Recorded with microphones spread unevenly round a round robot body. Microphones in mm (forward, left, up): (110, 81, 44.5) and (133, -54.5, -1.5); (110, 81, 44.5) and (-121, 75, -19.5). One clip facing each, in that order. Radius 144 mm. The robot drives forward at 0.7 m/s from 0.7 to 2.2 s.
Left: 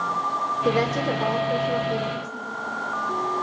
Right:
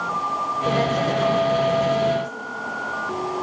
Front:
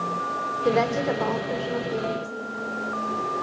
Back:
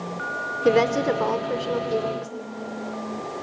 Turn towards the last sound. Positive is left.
turn(degrees=150)